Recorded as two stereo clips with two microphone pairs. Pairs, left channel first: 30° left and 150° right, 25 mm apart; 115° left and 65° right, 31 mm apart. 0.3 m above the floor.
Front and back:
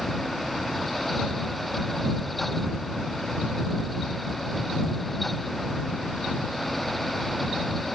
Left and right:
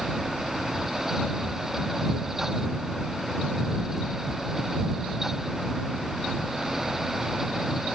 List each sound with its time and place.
Only background noise.